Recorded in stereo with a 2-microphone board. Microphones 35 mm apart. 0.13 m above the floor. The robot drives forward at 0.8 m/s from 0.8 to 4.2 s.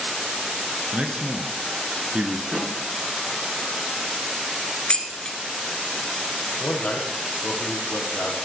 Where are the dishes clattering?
25° left (ahead or behind), 1.2 m.